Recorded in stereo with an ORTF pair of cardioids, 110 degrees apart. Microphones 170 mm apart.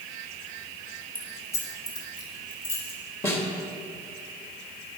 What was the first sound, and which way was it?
Keys jangling, 10° left.